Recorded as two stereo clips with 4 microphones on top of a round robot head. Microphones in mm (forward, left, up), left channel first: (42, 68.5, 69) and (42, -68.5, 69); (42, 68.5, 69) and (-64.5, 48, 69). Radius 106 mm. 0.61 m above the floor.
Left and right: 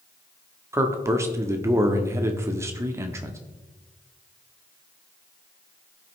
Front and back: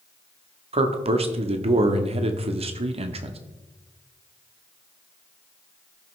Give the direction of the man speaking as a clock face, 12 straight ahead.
5 o'clock.